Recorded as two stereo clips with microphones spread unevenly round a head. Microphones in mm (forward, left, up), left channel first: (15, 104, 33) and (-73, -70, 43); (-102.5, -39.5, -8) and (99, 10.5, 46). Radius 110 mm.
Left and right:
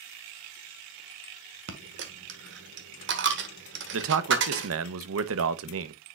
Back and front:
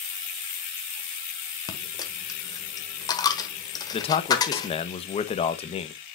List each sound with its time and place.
1.7 s a dropped coin: 85° right, 1.2 m
3.9 s a man speaking: 110° right, 0.9 m